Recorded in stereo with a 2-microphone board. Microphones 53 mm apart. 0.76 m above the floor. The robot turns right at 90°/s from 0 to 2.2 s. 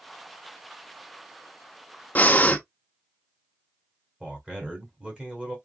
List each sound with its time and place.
2.1 s breathing: 30° left (ahead or behind), 0.7 m
4.2 s a man speaking: 20° right (ahead or behind), 2 m